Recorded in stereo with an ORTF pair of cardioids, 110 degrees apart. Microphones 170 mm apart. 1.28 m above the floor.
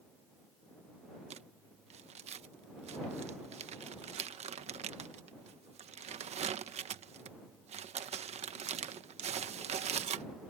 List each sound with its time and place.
1.3 s crumpling: 40° right